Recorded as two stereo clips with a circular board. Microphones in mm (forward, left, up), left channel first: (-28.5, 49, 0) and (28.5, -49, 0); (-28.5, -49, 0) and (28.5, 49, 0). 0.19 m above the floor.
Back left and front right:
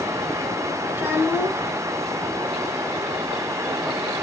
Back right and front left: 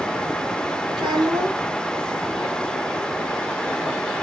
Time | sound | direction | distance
0.9 | a child speaking | 10° left | 6 m